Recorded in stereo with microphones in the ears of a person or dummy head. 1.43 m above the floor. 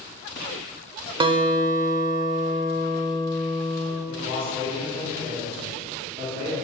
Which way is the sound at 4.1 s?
30° right (ahead or behind).